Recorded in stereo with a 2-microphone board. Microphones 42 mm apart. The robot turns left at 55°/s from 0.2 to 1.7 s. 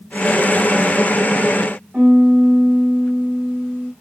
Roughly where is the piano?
Right.